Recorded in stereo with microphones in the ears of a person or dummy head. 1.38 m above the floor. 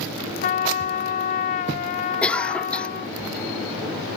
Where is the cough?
5° left (ahead or behind).